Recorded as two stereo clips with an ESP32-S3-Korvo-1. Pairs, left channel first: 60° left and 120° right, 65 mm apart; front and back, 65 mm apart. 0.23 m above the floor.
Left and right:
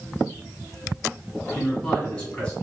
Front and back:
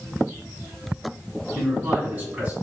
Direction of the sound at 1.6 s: 120° left.